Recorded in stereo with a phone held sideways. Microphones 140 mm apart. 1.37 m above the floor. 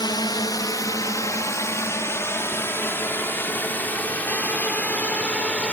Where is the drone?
30° left (ahead or behind); by 5.7 s 10° left (ahead or behind).